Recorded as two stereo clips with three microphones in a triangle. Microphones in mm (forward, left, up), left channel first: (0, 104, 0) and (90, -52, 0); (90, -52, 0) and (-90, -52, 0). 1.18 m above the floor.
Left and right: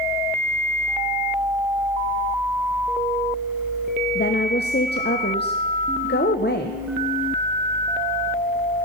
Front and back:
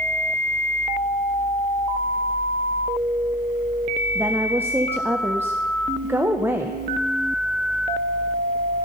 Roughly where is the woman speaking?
Left.